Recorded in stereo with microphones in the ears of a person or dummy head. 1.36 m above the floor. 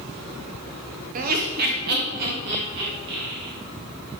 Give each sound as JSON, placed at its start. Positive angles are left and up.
{"t": 1.1, "sound": "laughter", "side_deg": -40, "distance_m": 0.6}